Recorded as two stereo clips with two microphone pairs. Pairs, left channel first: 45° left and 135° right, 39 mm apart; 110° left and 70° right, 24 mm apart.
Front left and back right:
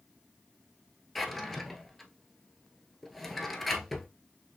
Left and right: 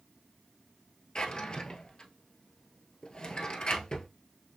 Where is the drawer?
130° left, 1.1 m.